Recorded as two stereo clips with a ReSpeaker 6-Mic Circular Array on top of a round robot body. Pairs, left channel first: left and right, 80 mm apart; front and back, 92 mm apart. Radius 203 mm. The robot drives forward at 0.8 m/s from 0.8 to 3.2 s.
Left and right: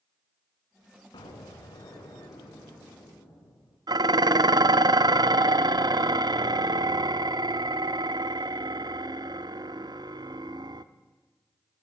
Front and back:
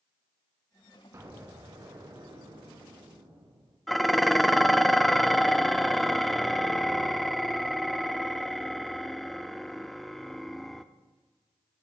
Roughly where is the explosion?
Behind left.